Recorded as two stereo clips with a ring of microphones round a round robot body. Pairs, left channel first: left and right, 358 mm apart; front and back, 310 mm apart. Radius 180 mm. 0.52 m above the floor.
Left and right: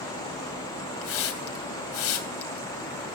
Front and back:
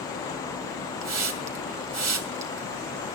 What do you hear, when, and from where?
1.0 s a hiss: 145° left, 2.5 m